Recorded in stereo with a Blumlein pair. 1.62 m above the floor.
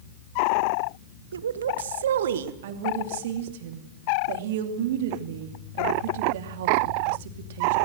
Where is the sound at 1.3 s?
70° right, 0.8 m; by 2.5 s 60° right, 1.7 m.